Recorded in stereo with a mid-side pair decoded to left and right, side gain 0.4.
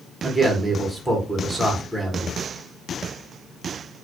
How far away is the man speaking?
About 1.3 m.